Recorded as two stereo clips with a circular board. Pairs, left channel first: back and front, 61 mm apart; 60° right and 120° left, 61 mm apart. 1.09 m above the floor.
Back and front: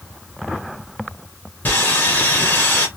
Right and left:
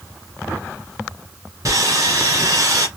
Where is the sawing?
125° left, 2 m.